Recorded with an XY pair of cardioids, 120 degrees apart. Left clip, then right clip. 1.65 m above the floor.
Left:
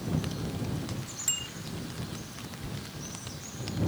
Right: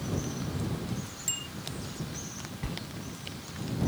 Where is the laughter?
I don't hear laughter.